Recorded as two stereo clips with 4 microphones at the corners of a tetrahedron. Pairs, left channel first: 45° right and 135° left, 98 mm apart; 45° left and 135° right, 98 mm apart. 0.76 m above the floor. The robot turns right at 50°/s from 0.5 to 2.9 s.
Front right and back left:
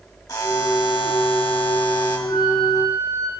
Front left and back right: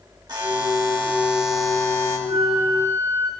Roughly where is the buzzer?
Right.